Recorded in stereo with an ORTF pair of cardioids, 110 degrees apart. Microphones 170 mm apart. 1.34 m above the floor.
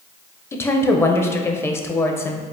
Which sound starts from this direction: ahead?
A woman speaking, at 0.5 s.